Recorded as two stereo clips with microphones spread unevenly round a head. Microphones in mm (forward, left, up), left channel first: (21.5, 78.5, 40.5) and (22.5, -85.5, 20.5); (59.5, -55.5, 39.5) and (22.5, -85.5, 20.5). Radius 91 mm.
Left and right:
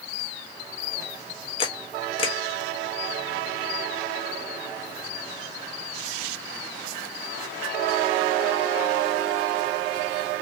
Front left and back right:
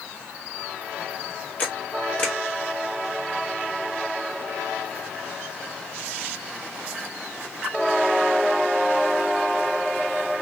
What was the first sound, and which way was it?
A camera shutter, 45° left.